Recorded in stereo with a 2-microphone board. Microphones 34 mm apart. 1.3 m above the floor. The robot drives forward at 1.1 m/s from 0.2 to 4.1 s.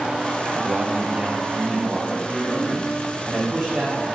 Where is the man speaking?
50° right (ahead or behind), 0.7 m; by 4.0 s 5° right (ahead or behind), 4.5 m.